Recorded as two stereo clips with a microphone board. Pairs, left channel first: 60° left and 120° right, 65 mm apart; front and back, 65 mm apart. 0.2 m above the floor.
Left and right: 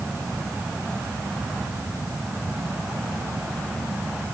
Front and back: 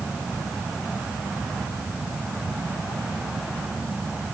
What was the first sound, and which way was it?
Only background noise.